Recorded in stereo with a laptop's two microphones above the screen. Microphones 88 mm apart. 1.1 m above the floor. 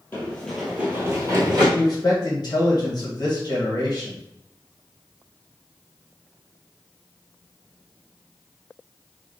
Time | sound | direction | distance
0.1 | running footsteps | 25° left (ahead or behind) | 1.2 m
1.8 | a man speaking | 55° left (ahead or behind) | 1.3 m